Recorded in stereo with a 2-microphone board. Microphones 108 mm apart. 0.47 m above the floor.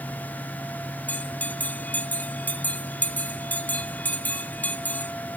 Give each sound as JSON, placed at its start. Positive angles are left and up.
{"t": 1.1, "sound": "a bell", "side_deg": 15, "distance_m": 1.0}